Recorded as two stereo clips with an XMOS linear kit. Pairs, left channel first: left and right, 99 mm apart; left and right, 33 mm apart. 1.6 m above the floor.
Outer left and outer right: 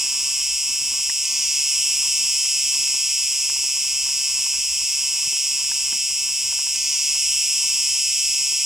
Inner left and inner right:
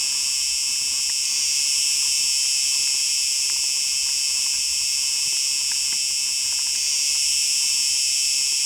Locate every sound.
0.0 s an insect: 5° right (ahead or behind)